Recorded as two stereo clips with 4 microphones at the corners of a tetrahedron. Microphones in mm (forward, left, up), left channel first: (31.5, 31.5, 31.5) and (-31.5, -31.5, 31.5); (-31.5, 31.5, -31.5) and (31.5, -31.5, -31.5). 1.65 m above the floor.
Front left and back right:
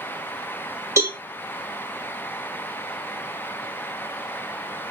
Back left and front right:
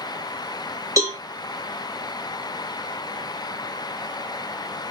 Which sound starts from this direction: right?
A cowbell, at 1.0 s.